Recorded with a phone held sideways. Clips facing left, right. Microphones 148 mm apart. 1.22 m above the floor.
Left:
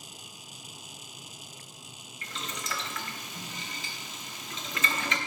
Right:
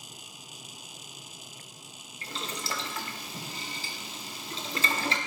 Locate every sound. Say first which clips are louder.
2.2 s boiling: right 2 dB; 35° right (ahead or behind), 0.7 m